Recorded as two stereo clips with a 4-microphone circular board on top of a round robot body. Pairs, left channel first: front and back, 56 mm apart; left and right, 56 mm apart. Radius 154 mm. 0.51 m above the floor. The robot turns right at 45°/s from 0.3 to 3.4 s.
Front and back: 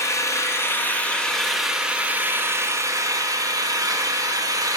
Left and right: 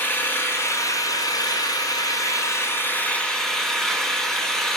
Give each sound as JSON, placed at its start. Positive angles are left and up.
{"t": 0.0, "sound": "an engine running", "azimuth_deg": 30, "distance_m": 0.8}